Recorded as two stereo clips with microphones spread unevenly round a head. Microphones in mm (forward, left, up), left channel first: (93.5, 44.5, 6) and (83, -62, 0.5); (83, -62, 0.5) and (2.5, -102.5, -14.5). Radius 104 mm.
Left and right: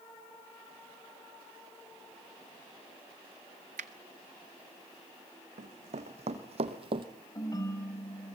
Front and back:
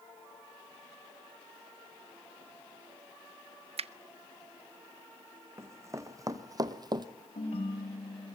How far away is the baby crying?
No baby crying in this recording.